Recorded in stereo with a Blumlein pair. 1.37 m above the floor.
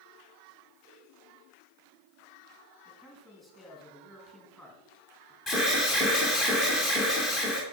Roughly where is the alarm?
Ahead left.